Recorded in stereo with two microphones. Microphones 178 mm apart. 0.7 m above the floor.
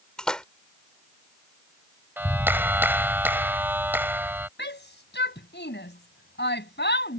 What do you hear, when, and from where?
0.2 s a splash: 5° left (ahead or behind)
2.2 s a clap: 10° right (ahead or behind)
4.6 s a shout: 80° left